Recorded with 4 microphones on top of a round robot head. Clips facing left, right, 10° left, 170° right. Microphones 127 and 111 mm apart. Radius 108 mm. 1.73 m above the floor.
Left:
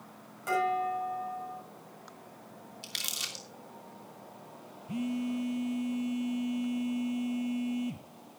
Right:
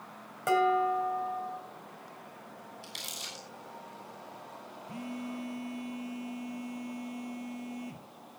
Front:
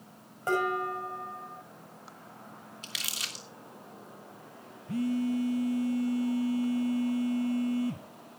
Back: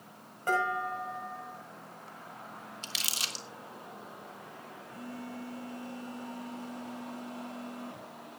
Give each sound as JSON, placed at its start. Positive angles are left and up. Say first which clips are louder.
{"t": 0.5, "sound": "dishes clattering", "louder": "right 3 dB, front 1 dB", "azimuth_deg": -65, "distance_m": 6.0}
{"t": 2.8, "sound": "crumpling", "louder": "right 1 dB, back 1 dB", "azimuth_deg": 135, "distance_m": 2.0}
{"t": 4.9, "sound": "a phone buzzing", "louder": "left 7 dB, front 15 dB", "azimuth_deg": 20, "distance_m": 1.4}